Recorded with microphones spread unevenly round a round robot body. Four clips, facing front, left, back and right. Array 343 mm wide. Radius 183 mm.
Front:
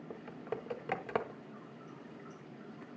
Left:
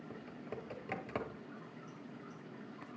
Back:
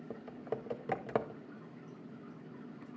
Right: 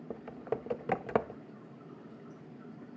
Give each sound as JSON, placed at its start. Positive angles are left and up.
{"t": 0.1, "sound": "typing on a keyboard", "azimuth_deg": -70, "distance_m": 0.6}